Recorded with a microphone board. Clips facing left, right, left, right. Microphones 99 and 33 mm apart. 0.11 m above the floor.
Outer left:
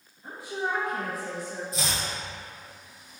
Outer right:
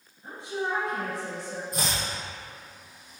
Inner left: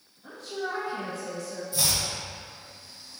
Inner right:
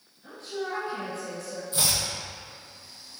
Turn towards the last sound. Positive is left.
turn(degrees=-50)  # may be behind; listen again after turning